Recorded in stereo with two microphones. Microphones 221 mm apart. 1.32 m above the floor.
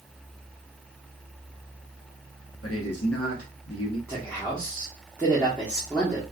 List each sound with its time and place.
2.6 s a man speaking: 90° left, 1.0 m
4.1 s a man speaking: 10° left (ahead or behind), 1.1 m